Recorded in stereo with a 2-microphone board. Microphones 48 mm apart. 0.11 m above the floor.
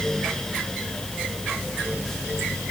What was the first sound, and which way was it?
Only background noise.